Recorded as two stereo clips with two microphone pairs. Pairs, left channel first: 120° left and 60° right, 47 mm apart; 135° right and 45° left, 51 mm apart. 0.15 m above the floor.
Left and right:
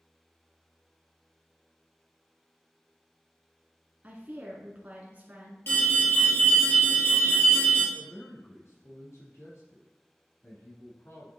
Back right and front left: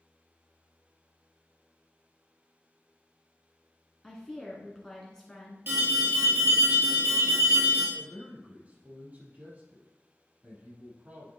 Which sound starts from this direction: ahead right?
A woman speaking, at 4.0 s.